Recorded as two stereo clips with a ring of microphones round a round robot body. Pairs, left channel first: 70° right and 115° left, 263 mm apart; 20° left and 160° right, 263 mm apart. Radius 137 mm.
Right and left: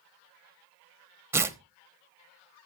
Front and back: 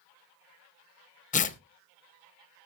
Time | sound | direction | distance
1.3 | tearing paper | 40° left | 1.0 m